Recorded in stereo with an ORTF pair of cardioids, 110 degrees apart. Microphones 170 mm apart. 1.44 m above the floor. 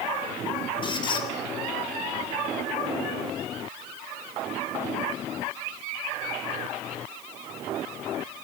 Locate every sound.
0.8 s a squeak: 30° left, 3.5 m